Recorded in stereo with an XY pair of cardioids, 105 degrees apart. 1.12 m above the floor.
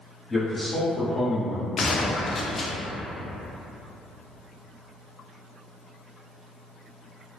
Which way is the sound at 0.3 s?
15° left.